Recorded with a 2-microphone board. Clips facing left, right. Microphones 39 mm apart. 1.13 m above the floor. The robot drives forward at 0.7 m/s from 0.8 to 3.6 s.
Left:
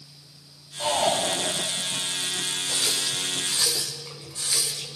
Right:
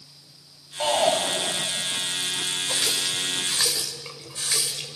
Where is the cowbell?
No cowbell in this recording.